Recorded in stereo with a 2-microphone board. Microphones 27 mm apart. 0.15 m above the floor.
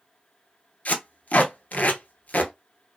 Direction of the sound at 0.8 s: 60° left (ahead or behind).